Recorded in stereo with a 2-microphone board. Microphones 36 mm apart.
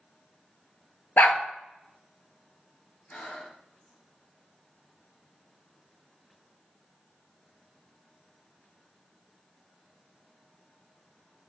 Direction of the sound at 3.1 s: 35° left (ahead or behind).